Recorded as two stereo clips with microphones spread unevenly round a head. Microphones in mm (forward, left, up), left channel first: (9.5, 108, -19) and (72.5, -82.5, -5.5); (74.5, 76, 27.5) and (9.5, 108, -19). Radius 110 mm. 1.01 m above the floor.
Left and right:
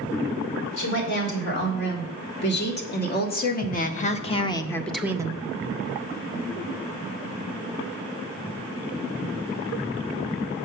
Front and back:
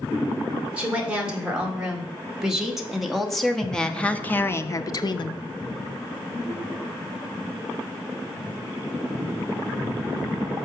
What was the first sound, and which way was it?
A woman speaking, 80° left.